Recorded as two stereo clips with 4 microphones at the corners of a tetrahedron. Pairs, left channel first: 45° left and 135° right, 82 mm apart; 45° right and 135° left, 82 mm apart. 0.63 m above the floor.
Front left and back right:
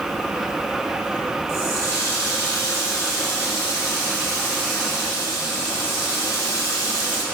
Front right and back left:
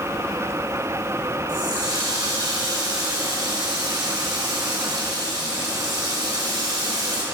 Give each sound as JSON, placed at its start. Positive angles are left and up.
{"t": 1.5, "sound": "a running tap", "azimuth_deg": 95, "distance_m": 2.0}